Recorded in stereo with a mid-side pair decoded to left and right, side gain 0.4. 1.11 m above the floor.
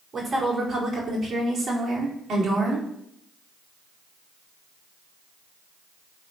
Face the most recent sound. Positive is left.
turn(degrees=-70)